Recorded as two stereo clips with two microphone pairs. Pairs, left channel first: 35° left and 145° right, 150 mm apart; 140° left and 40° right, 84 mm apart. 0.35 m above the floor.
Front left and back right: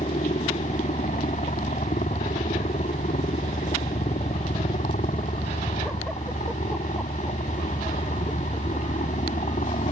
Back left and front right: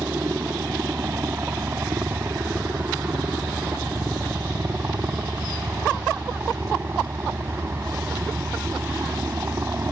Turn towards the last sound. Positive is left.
turn(degrees=15)